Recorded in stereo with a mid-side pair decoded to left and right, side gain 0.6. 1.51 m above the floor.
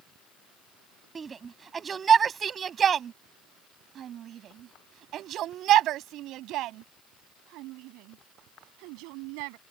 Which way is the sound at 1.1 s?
30° right.